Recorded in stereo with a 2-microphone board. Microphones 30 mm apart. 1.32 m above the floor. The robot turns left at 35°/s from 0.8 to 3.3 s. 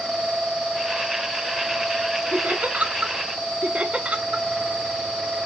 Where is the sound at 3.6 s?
40° right (ahead or behind), 0.6 m.